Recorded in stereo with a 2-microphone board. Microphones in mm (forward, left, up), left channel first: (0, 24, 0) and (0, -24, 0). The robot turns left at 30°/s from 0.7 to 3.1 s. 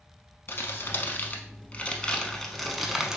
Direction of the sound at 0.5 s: 55° left (ahead or behind).